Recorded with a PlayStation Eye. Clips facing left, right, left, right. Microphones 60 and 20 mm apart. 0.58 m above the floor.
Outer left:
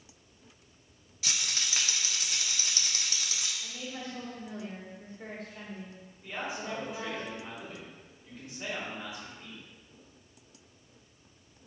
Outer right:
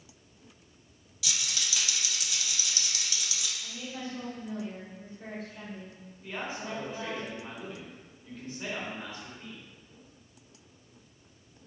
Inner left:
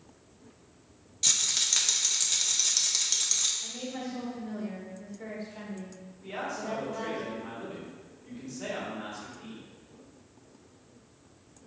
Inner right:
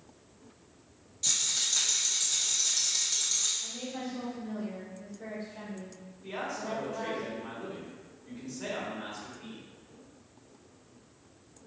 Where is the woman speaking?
50° left (ahead or behind), 1.9 m.